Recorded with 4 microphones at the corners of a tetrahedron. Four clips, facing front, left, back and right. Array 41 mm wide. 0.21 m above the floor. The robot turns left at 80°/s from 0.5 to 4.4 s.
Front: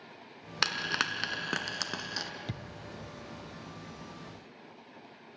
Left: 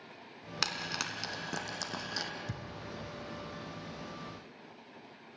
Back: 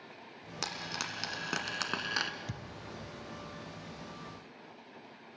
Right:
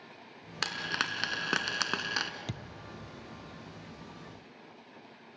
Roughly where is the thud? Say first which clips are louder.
Right 1 dB, front 3 dB; ahead right.